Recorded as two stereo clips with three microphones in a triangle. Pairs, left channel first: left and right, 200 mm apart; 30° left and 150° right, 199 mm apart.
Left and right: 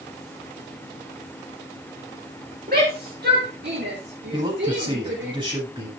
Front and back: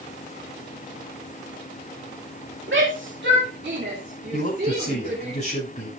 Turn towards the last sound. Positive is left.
turn(degrees=-25)